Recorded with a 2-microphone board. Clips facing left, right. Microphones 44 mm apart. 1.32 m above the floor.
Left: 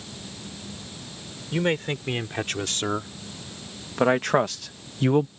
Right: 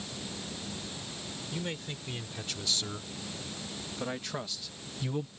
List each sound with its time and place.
1.5 s a man speaking: 55° left (ahead or behind); by 5.3 s 50° left (ahead or behind)